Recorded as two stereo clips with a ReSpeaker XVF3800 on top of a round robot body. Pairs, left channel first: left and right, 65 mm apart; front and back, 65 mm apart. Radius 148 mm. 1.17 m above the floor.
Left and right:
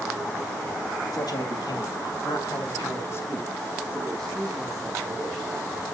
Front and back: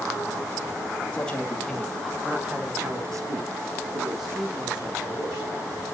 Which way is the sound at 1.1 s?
70° left.